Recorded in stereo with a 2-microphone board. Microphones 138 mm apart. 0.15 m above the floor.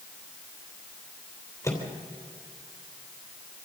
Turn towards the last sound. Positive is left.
turn(degrees=20)  # may be behind; listen again after turning